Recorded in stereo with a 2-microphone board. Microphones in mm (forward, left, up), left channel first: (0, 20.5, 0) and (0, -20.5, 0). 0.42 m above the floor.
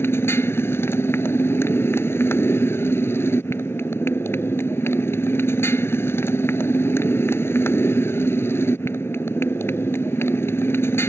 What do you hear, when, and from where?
0.0 s a motorcycle: 80° left